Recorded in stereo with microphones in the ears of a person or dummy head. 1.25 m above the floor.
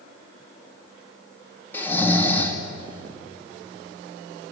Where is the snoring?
10° left (ahead or behind), 2.5 m.